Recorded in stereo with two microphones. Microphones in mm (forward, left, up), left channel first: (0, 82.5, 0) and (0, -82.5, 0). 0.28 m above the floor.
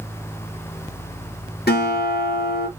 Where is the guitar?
75° left (ahead or behind), 2.5 m.